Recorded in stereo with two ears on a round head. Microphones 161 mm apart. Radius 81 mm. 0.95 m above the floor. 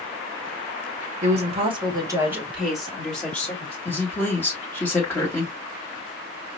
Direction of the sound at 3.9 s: 10° left (ahead or behind).